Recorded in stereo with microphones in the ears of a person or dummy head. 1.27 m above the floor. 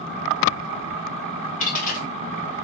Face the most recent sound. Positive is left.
turn(degrees=40)  # may be behind; listen again after turning